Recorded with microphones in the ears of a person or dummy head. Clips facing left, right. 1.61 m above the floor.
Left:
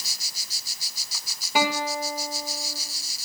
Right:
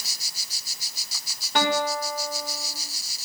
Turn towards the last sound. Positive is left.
turn(degrees=5)  # may be behind; listen again after turning